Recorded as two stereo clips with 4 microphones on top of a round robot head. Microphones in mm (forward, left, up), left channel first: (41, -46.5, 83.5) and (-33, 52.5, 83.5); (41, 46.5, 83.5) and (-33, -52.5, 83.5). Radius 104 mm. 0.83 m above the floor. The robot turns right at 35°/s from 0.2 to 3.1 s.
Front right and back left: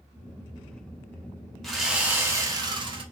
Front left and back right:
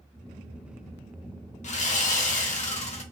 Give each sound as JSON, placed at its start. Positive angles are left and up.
{"t": 1.6, "sound": "sawing", "azimuth_deg": 35, "distance_m": 1.0}